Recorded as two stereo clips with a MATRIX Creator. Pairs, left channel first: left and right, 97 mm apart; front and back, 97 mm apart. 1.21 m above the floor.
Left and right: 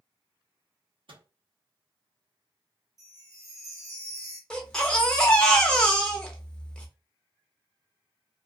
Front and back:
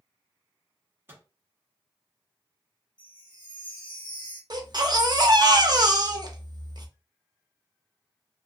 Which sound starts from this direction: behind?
A baby crying, at 4.5 s.